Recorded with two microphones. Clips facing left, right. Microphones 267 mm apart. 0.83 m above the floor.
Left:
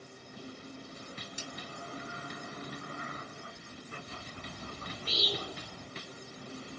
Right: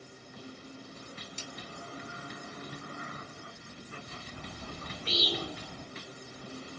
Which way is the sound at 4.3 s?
80° right.